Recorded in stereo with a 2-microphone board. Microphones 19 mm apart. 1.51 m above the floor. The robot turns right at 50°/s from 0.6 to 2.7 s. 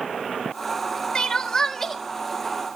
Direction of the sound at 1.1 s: 125° left.